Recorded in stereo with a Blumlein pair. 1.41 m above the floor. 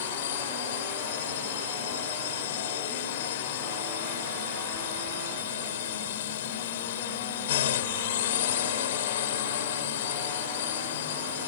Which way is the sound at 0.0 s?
55° left.